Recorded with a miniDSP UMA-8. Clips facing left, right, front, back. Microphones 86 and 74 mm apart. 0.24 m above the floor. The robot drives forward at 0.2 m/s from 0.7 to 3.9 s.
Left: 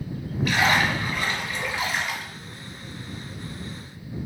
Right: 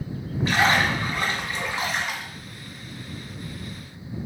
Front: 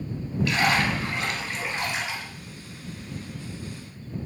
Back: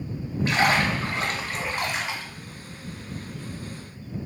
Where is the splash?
140° right, 1.1 m; by 2.2 s 150° right, 1.3 m.